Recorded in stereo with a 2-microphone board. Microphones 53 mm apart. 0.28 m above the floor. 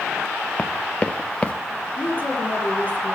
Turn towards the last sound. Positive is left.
turn(degrees=35)  # may be behind; listen again after turning